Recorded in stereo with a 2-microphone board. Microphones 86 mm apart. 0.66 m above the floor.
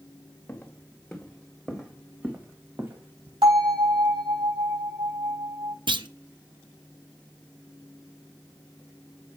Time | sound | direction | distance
0.5 | footsteps | 20° left (ahead or behind) | 2 m
3.4 | a bell | 75° right (ahead or behind) | 4.5 m
5.9 | a clunk | 65° right (ahead or behind) | 0.5 m